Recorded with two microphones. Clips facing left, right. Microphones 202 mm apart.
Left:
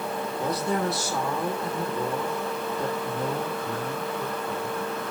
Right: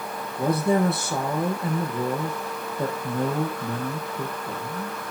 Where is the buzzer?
No buzzer in this recording.